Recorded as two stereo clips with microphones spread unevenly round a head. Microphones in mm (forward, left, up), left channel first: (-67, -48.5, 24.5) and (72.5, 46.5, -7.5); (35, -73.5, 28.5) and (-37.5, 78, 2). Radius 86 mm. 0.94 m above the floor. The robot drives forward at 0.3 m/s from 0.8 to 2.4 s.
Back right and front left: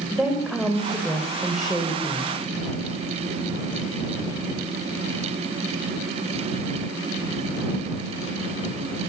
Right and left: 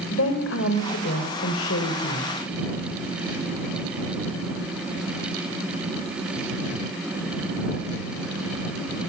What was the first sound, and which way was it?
A woman speaking, 55° right.